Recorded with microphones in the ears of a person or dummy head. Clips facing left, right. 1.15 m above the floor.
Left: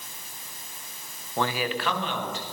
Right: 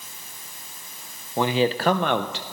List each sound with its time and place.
1.4 s a man speaking: 10° right (ahead or behind), 0.6 m; by 2.4 s 55° right (ahead or behind), 0.7 m